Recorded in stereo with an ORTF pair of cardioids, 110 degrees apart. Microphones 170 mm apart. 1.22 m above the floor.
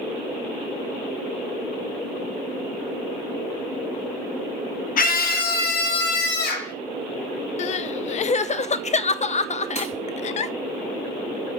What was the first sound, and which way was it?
A scream, 55° left.